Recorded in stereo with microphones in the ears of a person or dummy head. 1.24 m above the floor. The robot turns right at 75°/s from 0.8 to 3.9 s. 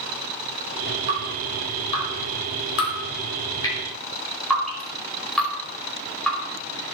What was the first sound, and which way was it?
Dripping, 35° right (ahead or behind).